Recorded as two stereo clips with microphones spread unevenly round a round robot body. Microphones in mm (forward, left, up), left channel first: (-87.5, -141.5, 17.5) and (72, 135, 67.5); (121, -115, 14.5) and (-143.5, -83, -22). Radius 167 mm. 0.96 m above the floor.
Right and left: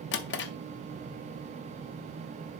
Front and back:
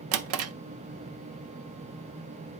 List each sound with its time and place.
0.1 s a drawer: 175° right, 0.5 m